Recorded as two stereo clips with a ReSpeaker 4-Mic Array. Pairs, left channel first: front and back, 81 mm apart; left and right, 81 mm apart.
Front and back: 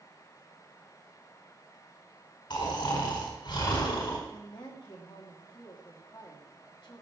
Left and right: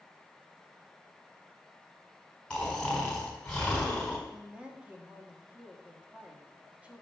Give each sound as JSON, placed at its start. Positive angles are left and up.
{"t": 2.5, "sound": "snoring", "azimuth_deg": 10, "distance_m": 4.5}
{"t": 4.3, "sound": "a woman speaking", "azimuth_deg": -15, "distance_m": 2.5}